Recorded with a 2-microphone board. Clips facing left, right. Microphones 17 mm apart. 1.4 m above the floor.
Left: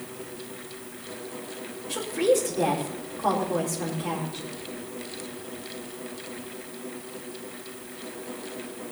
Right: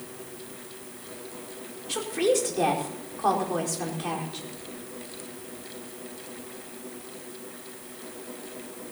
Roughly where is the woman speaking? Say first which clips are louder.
Left 1 dB; right.